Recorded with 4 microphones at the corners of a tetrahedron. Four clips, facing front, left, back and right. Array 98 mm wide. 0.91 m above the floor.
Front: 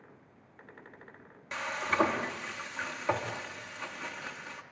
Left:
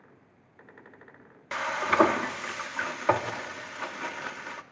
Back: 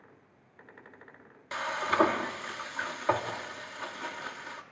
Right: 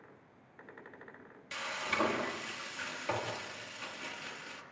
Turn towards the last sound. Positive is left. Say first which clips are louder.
# left 11 dB, back 2 dB
turn(degrees=110)